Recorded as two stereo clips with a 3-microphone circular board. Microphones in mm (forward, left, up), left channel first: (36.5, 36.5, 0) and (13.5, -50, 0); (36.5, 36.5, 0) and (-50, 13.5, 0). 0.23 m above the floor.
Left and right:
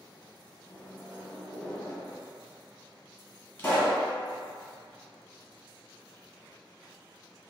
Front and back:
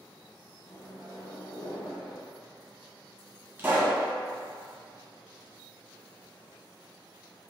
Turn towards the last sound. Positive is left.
turn(degrees=140)